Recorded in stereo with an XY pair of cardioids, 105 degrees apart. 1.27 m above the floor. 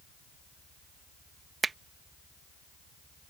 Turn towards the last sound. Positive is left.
turn(degrees=-30)